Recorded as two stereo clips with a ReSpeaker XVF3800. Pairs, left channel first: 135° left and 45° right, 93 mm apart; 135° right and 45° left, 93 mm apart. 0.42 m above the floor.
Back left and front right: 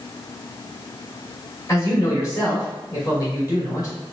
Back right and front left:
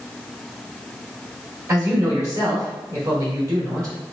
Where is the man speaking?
90° left, 2.0 m.